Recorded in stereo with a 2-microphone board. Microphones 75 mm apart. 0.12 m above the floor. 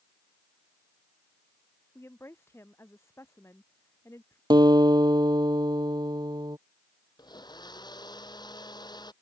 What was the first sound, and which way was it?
A woman speaking, 35° left (ahead or behind).